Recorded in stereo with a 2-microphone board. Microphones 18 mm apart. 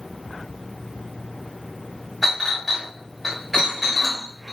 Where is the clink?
10° right (ahead or behind), 1.3 m.